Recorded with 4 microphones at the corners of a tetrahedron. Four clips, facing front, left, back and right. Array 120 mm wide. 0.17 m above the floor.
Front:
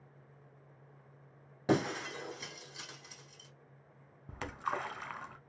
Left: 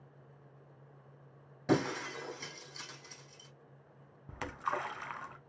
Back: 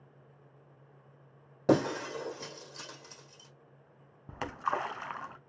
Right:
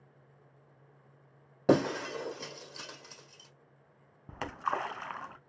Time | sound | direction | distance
1.7 | breaking glass | 120° right | 1.9 m
4.3 | a splash | 140° right | 0.6 m